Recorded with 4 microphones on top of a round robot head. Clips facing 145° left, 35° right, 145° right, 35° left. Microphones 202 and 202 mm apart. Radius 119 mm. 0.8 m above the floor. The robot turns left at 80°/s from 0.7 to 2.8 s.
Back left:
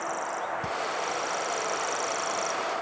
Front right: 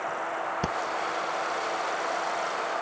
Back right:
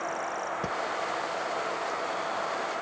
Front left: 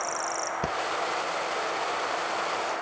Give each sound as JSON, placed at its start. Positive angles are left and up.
{"t": 0.6, "sound": "breathing", "azimuth_deg": -35, "distance_m": 0.7}